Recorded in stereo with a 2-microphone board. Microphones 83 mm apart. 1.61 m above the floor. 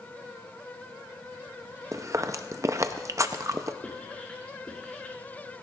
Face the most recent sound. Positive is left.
turn(degrees=15)  # may be behind; listen again after turning